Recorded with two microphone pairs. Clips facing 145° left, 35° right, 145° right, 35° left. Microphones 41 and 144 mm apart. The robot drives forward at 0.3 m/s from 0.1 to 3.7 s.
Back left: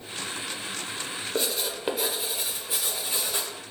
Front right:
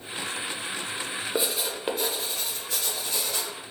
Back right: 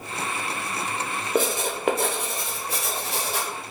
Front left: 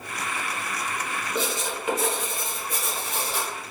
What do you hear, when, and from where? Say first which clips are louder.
1.4 s writing: even, back right 6 dB; 110° right, 0.5 m; by 3.5 s 150° right, 1.0 m